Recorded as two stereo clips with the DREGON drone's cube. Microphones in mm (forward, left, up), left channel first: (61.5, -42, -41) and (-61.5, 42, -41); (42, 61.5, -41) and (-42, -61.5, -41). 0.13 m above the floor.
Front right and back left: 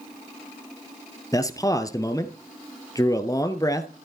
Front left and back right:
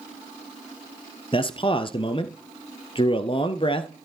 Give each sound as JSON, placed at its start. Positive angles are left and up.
{"t": 1.3, "sound": "a man speaking", "azimuth_deg": 25, "distance_m": 1.6}